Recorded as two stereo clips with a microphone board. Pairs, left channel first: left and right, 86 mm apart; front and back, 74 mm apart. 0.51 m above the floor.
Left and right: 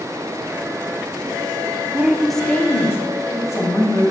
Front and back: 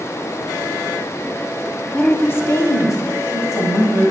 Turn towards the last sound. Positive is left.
turn(degrees=45)